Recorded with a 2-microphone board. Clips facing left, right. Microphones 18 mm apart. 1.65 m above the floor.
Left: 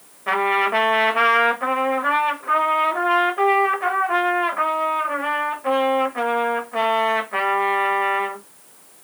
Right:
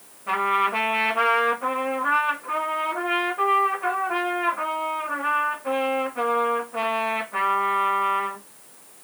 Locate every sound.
0.3 s a trumpet: 55° left (ahead or behind), 1.3 m